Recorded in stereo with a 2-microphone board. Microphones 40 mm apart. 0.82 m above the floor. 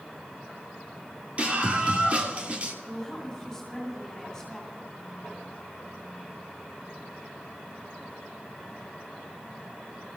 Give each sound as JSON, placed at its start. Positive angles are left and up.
{"t": 1.4, "sound": "a scream", "side_deg": -35, "distance_m": 2.5}
{"t": 2.8, "sound": "a woman speaking", "side_deg": 10, "distance_m": 9.5}